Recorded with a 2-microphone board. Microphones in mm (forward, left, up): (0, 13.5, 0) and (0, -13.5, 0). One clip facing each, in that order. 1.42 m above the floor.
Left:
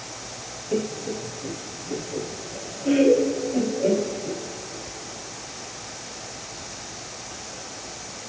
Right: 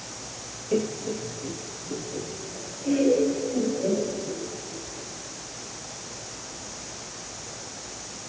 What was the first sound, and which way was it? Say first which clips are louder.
Laughter: even; 5° right (ahead or behind).